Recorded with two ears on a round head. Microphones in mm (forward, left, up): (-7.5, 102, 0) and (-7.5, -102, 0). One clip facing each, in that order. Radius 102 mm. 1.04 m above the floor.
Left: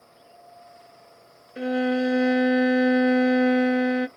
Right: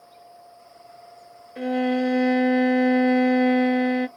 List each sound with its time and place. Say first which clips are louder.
1.6 s a violin: right 1 dB; 10° left (ahead or behind), 0.8 m